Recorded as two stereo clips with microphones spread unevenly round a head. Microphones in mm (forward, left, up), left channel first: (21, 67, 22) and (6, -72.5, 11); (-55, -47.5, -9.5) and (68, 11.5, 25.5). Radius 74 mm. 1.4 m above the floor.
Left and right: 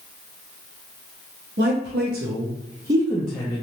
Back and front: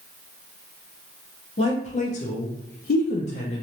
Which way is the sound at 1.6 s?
110° right.